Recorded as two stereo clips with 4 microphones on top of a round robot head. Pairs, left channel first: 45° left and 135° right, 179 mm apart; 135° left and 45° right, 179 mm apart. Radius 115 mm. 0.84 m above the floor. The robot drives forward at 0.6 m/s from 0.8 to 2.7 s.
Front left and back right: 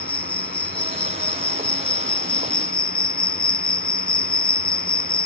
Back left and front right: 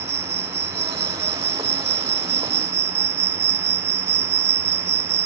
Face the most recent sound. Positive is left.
turn(degrees=-15)